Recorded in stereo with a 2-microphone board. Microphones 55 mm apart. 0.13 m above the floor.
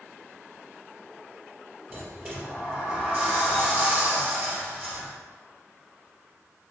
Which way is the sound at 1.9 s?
25° right (ahead or behind).